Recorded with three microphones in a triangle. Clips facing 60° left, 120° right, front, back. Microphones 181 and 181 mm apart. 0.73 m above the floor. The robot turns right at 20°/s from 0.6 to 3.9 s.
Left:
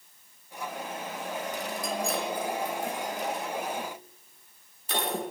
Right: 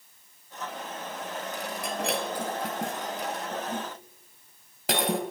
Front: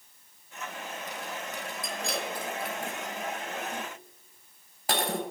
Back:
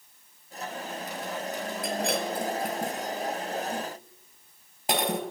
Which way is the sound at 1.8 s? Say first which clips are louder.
Right 1 dB, back 6 dB; 150° right.